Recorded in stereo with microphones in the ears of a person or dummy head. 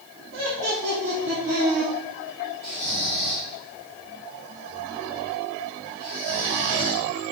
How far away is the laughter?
About 3 m.